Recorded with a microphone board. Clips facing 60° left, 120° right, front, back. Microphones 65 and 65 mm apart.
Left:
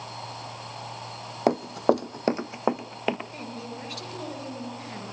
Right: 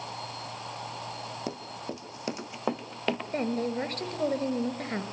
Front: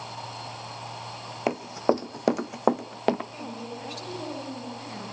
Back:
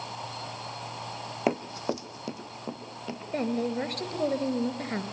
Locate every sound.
1.5 s running footsteps: 90° left, 0.6 m; by 3.2 s 20° right, 1.3 m
3.3 s a woman speaking: 160° right, 3 m